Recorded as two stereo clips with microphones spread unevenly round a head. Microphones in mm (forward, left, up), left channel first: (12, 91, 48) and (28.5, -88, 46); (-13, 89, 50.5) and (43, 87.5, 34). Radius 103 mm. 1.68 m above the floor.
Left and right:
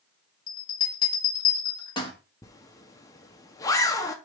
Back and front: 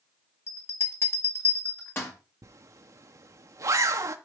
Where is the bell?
160° left, 1.5 m.